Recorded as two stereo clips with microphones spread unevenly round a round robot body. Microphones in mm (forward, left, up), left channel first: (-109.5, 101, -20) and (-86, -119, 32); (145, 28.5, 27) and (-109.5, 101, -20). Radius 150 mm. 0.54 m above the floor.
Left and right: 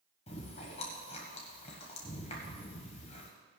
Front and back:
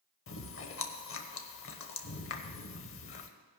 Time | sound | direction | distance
0.3 | chewing | 25° left | 1.1 m